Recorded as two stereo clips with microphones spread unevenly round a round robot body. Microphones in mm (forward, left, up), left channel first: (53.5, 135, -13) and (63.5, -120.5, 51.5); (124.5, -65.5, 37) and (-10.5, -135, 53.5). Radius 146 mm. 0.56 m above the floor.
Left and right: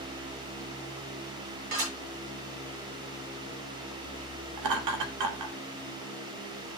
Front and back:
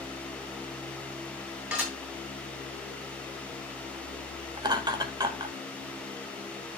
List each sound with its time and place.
1.7 s dishes clattering: 70° right, 8 m
4.6 s laughter: 90° right, 3 m